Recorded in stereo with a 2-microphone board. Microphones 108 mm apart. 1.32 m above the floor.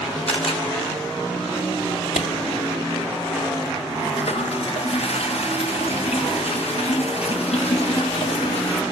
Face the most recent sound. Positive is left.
turn(degrees=70)  # may be behind; listen again after turning